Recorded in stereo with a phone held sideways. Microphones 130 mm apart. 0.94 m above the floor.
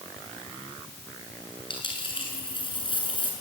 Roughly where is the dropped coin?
Left.